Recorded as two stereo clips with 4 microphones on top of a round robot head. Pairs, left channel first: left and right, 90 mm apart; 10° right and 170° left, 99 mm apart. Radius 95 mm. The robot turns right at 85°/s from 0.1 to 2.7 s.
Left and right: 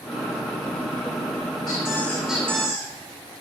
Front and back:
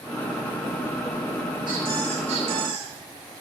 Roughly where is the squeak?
Behind left.